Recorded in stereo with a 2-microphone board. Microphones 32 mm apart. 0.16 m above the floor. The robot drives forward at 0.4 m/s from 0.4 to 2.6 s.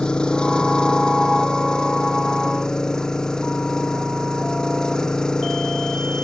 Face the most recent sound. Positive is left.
turn(degrees=20)  # may be behind; listen again after turning